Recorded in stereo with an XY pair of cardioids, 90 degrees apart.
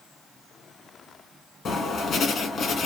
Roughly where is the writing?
Ahead left.